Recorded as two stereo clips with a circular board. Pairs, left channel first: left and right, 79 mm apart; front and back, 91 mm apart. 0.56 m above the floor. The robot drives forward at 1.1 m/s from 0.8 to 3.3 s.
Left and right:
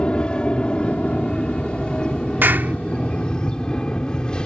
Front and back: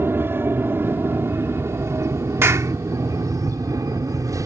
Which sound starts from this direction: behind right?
A clap, at 2.4 s.